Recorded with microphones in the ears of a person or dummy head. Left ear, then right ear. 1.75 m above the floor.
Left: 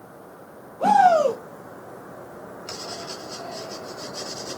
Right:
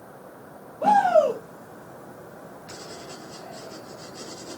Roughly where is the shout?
Left.